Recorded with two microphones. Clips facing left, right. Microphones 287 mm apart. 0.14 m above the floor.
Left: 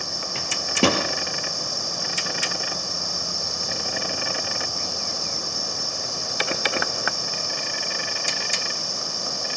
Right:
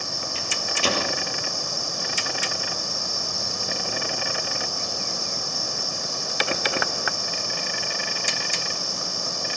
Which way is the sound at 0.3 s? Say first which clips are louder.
Left 13 dB; 65° left (ahead or behind).